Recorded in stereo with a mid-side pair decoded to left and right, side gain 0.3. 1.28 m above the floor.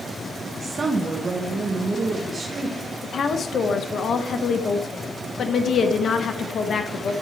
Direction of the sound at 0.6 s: 50° right.